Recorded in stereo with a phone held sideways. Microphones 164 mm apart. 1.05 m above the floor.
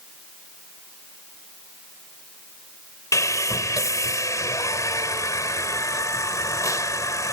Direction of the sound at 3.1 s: 20° left (ahead or behind).